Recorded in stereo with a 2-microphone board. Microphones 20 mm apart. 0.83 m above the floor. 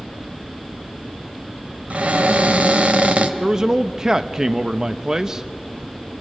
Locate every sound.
1.9 s a cupboard door: 80° right, 1.7 m
3.4 s a man speaking: 25° right (ahead or behind), 0.8 m